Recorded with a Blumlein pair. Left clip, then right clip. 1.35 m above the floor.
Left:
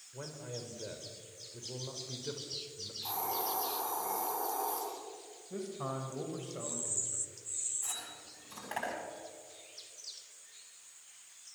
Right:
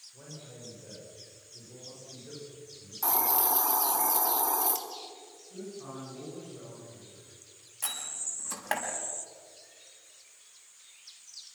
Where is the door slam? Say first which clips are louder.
Right 5 dB; 55° right, 7 m.